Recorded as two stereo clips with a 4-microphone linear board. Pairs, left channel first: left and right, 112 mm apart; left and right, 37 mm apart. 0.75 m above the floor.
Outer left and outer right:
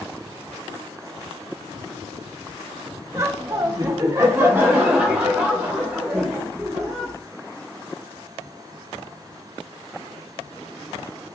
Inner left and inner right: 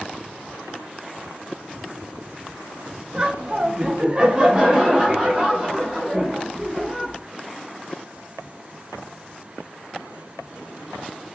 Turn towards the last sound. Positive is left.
turn(degrees=-5)  # may be behind; listen again after turning